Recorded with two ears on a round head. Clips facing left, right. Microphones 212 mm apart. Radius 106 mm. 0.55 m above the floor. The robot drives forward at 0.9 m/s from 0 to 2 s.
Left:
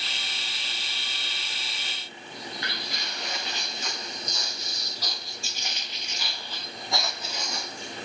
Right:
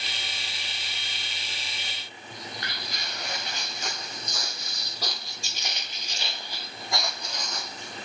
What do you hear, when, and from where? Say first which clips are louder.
2.3 s footsteps: left 2 dB; 35° right (ahead or behind), 3.5 m; by 8.0 s 10° left (ahead or behind), 2 m